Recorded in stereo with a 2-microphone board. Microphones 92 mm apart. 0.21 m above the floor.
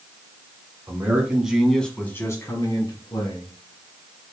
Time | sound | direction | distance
0.9 | a man speaking | 25° right (ahead or behind) | 1.7 m